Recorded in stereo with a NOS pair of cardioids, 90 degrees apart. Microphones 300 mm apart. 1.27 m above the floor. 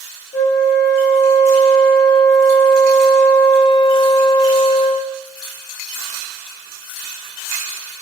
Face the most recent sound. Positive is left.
turn(degrees=35)